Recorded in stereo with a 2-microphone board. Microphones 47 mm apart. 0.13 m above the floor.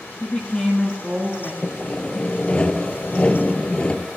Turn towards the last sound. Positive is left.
turn(degrees=25)  # may be behind; listen again after turning